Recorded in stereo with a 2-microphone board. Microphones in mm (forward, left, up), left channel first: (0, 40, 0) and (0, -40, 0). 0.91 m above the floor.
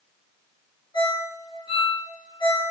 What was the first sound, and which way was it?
A ringtone, 80° left.